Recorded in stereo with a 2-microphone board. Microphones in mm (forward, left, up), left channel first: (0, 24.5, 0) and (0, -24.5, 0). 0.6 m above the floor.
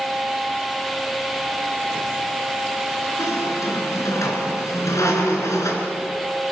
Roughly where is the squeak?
Left.